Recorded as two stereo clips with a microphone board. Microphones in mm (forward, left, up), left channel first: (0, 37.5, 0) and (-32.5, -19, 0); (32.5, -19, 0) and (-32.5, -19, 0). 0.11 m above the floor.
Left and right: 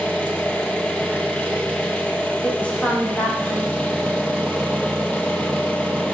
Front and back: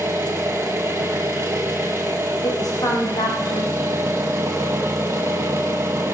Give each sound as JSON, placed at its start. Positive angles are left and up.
{"t": 0.0, "sound": "an engine running", "azimuth_deg": 130, "distance_m": 2.5}
{"t": 2.4, "sound": "a woman speaking", "azimuth_deg": -10, "distance_m": 6.0}